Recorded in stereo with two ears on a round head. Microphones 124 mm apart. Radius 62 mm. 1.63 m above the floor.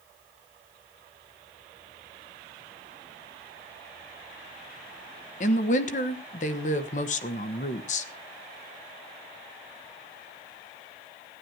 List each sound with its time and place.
5.4 s a woman speaking: 55° left (ahead or behind), 1.3 m